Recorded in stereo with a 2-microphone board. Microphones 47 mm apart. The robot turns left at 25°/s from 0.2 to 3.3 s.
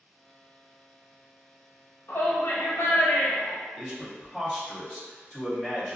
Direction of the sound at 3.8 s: Centre (ahead or behind).